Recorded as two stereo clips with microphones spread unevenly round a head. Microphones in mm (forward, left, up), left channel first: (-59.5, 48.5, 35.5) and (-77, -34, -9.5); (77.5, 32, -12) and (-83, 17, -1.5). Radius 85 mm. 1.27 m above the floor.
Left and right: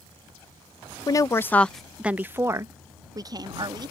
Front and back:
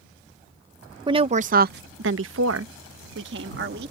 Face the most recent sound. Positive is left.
turn(degrees=-140)